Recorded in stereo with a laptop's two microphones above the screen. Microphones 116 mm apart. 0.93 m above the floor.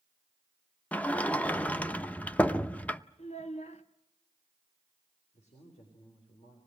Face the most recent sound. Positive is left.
turn(degrees=70)  # may be behind; listen again after turning